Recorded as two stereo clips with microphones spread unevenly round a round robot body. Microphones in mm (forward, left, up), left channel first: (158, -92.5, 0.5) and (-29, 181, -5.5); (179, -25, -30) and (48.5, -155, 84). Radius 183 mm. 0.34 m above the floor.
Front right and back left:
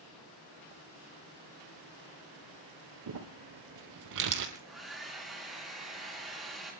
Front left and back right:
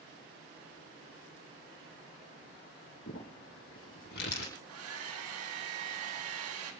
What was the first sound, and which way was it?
Crumpling, 95° left.